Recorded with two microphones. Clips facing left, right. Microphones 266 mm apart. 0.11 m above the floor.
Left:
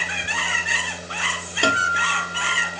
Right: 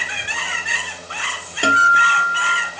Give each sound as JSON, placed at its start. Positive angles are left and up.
{"t": 1.6, "sound": "a guitar", "side_deg": -5, "distance_m": 1.7}